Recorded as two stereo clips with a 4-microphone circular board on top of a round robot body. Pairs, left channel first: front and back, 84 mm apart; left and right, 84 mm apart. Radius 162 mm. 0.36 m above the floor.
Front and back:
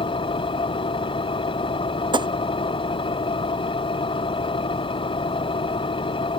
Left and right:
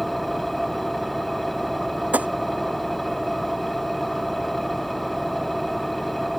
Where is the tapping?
160° right.